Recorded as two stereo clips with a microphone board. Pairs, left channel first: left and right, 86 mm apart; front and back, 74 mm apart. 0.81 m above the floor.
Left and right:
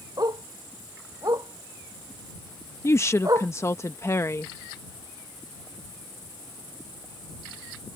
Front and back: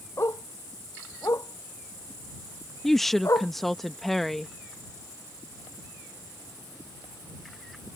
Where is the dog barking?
50° right; by 3.5 s 45° right.